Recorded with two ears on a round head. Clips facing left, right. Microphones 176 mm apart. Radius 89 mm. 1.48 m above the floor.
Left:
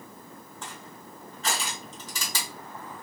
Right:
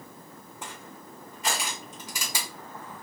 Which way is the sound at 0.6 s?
15° right (ahead or behind).